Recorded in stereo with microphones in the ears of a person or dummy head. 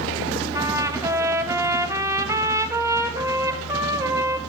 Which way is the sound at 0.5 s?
15° right (ahead or behind).